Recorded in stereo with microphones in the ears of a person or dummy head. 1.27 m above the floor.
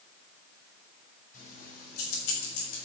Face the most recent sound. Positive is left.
turn(degrees=80)